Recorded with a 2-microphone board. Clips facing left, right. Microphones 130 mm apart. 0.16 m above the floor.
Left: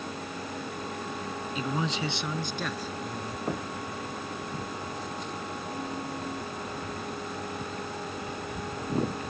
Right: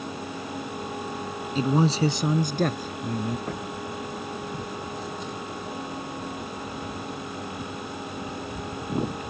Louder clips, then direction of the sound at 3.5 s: Even; 10° left (ahead or behind).